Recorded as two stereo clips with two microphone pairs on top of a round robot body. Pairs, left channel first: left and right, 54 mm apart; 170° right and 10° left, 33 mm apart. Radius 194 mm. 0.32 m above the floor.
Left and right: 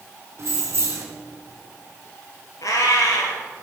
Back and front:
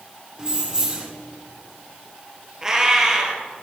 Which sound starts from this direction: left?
A cat meowing, at 2.6 s.